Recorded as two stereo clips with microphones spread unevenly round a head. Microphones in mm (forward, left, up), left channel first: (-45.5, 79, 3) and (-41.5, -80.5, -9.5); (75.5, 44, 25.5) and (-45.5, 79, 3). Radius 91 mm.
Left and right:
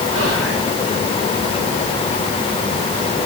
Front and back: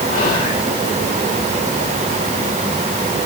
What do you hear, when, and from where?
0.1 s whispering: 20° right, 5.5 m